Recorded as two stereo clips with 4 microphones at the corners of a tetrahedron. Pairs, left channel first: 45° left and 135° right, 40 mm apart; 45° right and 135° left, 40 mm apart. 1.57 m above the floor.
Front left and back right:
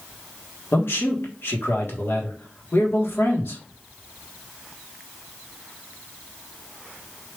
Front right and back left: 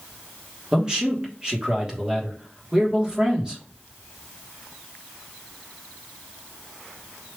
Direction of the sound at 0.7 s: 65° left.